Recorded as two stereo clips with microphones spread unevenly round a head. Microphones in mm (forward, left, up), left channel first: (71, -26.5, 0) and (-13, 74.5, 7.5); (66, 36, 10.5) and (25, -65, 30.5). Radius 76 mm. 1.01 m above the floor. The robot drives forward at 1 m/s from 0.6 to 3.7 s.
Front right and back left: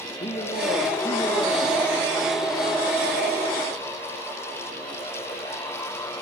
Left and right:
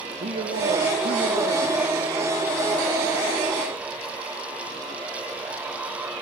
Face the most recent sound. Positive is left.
turn(degrees=-150)